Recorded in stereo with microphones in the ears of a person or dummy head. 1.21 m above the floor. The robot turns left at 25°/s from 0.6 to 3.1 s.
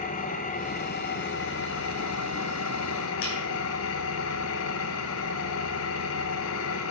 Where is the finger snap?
75° left (ahead or behind), 3.5 m.